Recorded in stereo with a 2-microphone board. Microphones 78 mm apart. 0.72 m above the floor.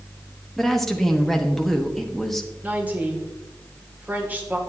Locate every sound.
0.6 s a woman speaking: centre (ahead or behind), 1.1 m
2.6 s a woman speaking: 20° right (ahead or behind), 2.0 m